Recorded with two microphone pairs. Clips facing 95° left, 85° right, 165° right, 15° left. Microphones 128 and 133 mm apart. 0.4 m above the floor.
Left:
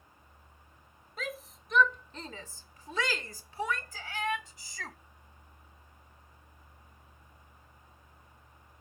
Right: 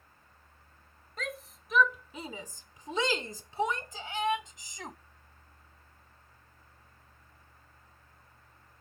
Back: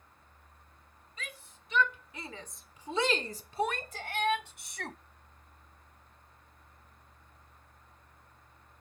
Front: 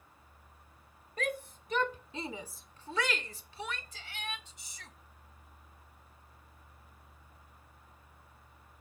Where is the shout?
10° left; by 5.0 s 150° right.